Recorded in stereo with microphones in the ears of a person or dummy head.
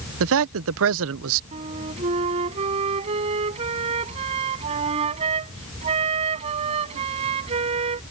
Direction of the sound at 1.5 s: 35° right (ahead or behind).